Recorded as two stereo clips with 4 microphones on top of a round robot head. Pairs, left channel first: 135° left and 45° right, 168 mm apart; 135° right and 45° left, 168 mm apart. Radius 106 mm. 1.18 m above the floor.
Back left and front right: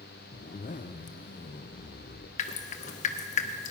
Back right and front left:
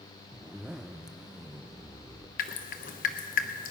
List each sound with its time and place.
0.3 s a zipper: 130° left, 0.6 m
2.4 s dripping: 175° right, 0.7 m